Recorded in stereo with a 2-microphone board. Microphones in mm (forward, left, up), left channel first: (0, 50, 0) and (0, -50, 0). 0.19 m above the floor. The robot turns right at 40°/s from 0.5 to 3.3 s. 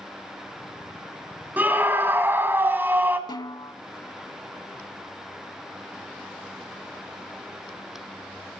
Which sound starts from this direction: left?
A snare drum, at 3.3 s.